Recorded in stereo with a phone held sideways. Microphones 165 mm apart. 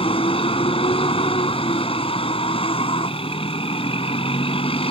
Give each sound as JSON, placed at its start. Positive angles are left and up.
{"t": 0.0, "sound": "a vehicle", "side_deg": 35}